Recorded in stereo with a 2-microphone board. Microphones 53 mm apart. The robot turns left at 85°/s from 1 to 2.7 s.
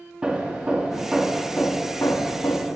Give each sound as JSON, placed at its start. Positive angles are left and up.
{"t": 0.2, "sound": "hammering", "azimuth_deg": -165, "distance_m": 1.3}